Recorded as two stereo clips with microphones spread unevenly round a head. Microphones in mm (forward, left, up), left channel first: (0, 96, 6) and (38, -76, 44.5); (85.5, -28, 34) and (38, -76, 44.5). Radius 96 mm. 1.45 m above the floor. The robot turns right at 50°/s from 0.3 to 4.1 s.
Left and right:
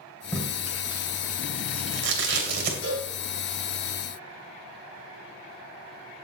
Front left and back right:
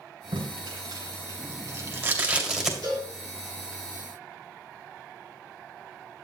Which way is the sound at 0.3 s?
170° right.